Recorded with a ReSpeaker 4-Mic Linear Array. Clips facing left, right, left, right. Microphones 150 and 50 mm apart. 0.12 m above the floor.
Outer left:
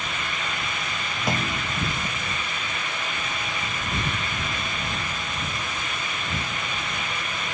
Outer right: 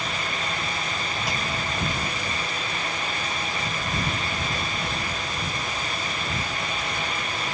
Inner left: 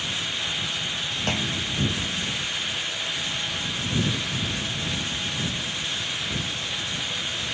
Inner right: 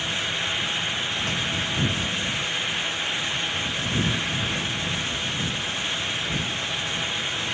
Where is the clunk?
55° left (ahead or behind).